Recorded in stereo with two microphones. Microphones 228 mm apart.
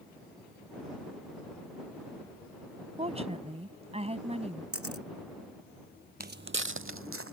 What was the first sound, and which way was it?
A woman speaking, 25° right (ahead or behind).